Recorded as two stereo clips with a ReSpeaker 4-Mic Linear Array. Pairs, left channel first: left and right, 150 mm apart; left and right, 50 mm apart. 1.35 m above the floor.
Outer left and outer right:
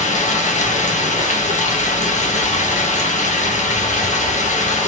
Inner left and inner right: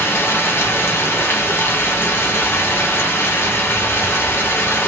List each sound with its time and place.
0.0 s running water: 55° left (ahead or behind), 1.1 m